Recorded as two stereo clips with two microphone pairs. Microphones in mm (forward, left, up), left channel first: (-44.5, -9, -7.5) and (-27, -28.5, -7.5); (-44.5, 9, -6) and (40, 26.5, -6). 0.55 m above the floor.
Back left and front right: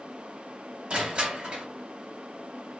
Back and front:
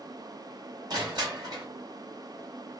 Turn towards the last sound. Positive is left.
turn(degrees=-5)